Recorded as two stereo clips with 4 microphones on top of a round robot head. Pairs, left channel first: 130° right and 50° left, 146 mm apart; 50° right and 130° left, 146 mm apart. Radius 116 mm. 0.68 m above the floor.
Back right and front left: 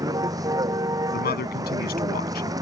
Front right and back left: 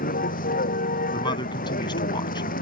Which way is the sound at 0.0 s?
20° right.